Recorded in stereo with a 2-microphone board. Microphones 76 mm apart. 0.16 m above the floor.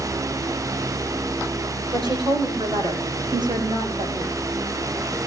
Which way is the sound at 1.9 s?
80° right.